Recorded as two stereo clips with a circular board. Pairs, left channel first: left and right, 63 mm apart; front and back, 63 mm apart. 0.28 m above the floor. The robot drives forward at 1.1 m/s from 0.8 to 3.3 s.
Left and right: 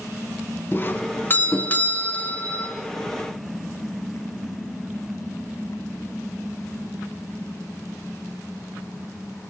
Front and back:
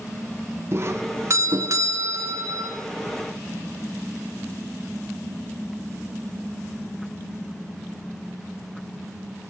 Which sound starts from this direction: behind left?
A doorbell, at 0.7 s.